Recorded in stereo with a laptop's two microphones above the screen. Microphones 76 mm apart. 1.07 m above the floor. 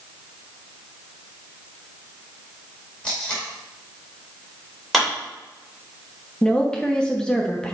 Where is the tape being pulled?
15° left (ahead or behind), 2 m.